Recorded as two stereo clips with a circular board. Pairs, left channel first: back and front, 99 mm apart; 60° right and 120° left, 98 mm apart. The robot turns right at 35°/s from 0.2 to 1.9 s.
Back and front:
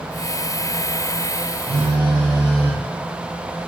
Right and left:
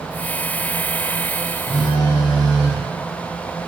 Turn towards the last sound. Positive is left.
turn(degrees=-10)